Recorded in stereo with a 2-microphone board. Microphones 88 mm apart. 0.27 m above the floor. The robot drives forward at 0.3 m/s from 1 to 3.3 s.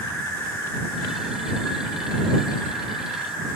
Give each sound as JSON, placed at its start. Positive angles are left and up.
{"t": 0.0, "sound": "an insect", "side_deg": 25, "distance_m": 1.3}